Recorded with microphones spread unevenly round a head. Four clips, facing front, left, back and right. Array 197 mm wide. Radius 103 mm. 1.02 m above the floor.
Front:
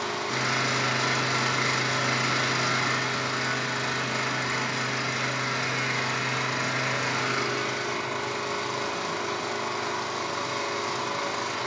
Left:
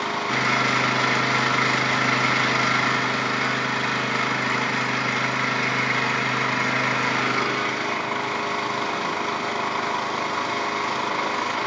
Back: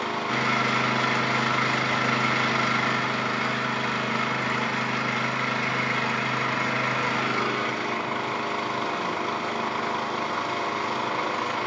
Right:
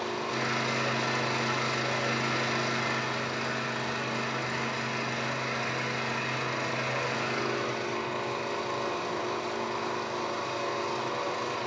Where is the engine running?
105° left, 2.5 m.